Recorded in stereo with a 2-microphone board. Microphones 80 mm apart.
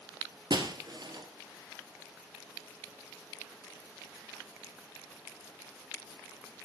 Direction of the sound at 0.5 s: 65° right (ahead or behind).